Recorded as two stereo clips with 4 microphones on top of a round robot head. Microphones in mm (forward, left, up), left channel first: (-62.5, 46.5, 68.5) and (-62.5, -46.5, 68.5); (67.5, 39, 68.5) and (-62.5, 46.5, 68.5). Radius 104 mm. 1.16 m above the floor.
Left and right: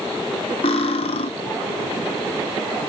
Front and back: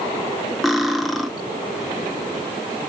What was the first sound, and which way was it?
Cutlery clinking, 85° left.